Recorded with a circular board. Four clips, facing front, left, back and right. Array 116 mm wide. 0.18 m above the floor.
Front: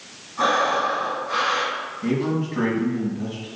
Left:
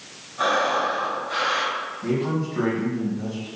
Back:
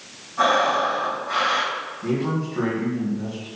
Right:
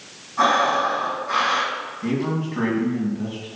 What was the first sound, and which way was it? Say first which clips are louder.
Breathing: right 3 dB, back 1 dB; 95° right.